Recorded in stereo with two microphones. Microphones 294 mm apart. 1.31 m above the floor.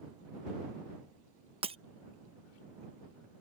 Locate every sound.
1.6 s breaking glass: 20° right (ahead or behind)